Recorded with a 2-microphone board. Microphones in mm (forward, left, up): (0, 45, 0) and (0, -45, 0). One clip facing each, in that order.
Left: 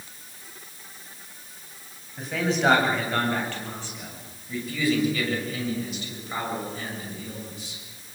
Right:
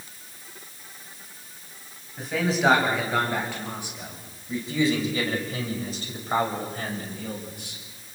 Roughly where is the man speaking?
Centre.